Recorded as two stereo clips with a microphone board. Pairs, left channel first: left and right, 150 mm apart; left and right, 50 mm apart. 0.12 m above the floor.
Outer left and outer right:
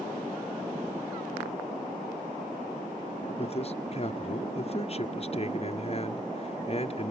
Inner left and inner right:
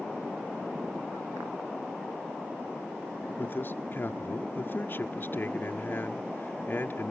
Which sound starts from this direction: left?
A man speaking, at 3.4 s.